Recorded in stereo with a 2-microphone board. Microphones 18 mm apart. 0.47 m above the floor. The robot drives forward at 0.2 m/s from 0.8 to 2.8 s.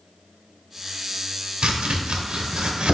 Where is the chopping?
75° right (ahead or behind), 0.7 m; by 3.0 s 65° right (ahead or behind), 0.8 m.